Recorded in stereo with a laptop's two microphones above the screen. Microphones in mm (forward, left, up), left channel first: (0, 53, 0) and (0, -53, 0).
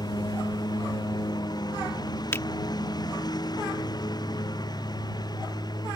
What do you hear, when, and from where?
0.0 s a lawn mower: 40° left (ahead or behind)
2.3 s a finger snap: 25° left (ahead or behind)